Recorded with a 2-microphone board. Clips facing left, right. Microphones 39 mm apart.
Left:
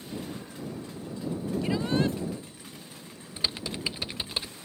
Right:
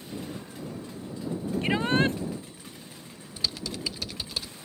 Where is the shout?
45° right (ahead or behind).